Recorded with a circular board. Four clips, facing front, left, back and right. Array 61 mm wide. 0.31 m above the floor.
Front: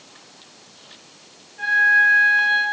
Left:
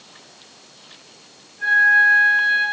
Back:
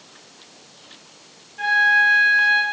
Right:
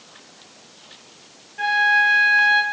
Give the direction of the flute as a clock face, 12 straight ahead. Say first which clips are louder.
Left 3 dB, front 1 dB; 4 o'clock.